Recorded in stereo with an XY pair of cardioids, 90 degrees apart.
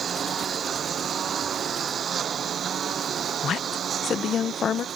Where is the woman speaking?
60° left.